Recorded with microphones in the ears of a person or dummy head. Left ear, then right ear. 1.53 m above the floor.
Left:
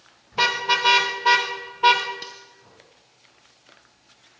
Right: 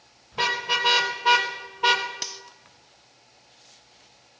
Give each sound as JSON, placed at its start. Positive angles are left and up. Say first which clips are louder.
{"t": 0.3, "sound": "a car horn", "louder": "left 4 dB", "side_deg": 20, "distance_m": 4.5}
{"t": 2.2, "sound": "cutlery clinking", "louder": "right 4 dB", "side_deg": -30, "distance_m": 0.7}